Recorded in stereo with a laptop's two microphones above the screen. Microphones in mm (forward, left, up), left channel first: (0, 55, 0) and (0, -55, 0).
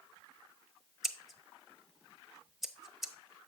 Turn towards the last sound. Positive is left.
turn(degrees=0)  # may be behind; listen again after turning